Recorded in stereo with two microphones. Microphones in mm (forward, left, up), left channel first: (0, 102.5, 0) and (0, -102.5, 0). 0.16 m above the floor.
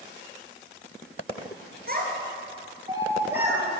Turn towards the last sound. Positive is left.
turn(degrees=-5)  # may be behind; listen again after turning